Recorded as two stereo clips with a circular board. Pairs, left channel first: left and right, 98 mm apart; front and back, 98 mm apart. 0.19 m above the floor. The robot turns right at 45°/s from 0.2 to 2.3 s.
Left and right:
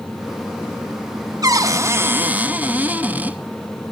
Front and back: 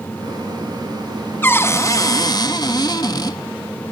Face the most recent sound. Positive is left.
turn(degrees=-25)